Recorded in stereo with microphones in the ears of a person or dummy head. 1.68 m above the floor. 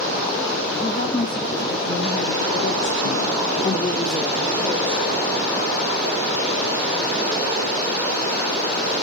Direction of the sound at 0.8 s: 45° left (ahead or behind).